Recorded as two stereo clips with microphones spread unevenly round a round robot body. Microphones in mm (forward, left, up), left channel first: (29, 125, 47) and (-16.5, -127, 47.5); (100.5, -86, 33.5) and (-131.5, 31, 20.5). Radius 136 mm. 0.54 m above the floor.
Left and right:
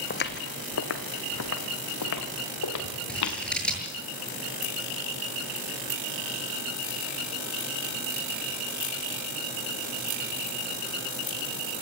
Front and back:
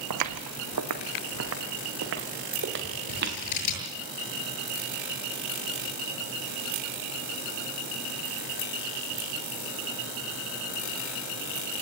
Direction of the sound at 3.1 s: 5° right.